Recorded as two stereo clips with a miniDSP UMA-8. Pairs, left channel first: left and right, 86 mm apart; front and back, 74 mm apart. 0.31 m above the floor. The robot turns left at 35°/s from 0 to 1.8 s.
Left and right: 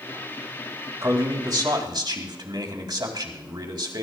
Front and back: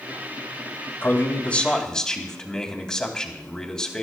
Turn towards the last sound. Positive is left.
turn(degrees=-80)